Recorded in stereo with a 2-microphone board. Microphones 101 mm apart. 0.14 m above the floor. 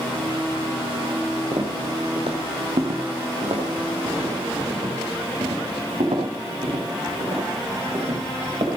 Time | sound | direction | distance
1.5 | footsteps | 60° right (ahead or behind) | 2 m